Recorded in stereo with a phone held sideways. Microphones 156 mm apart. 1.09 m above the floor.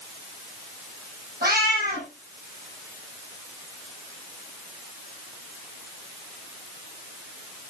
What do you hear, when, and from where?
1.4 s a cat meowing: 85° right, 8 m